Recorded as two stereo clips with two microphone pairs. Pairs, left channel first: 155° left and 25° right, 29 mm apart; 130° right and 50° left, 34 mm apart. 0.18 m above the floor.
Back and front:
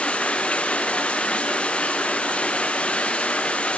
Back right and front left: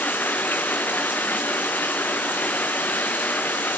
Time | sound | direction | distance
0.0 | running water | 150° right | 2 m